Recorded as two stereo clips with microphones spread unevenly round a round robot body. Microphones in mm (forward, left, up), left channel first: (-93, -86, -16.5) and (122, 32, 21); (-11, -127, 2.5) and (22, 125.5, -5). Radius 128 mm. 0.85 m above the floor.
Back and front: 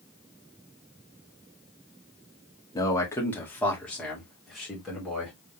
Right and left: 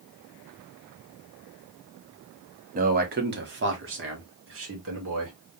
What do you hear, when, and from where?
2.8 s a man speaking: 140° left, 1.2 m; by 5.3 s 120° left, 2.5 m